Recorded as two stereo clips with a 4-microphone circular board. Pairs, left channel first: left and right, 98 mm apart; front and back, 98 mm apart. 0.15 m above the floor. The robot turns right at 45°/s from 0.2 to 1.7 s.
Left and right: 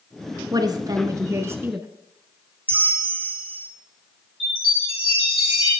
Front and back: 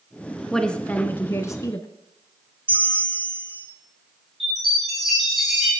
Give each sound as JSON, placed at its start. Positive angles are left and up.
{"t": 0.5, "sound": "a woman speaking", "azimuth_deg": -85, "distance_m": 1.4}
{"t": 2.7, "sound": "a bell", "azimuth_deg": -155, "distance_m": 1.9}
{"t": 4.4, "sound": "a chime", "azimuth_deg": 90, "distance_m": 8.0}